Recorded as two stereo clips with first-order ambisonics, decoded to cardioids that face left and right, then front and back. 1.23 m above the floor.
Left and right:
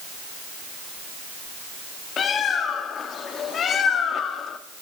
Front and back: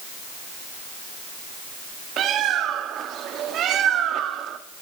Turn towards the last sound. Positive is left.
turn(degrees=140)